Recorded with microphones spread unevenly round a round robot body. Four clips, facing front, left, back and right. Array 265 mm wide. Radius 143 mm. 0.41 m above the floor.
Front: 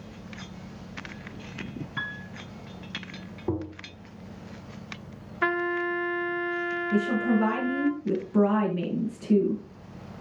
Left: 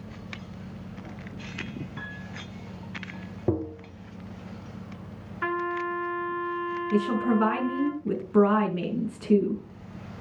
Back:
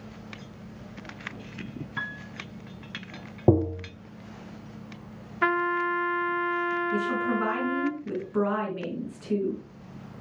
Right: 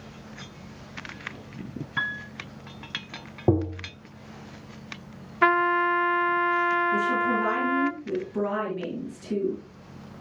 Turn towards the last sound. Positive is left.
turn(degrees=60)